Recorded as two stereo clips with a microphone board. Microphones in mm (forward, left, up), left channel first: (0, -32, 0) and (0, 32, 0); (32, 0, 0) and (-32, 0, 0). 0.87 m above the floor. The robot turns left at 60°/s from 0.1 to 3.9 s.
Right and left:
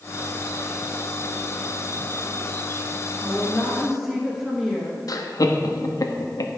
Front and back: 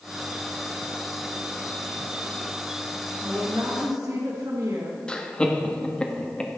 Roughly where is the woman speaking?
Behind right.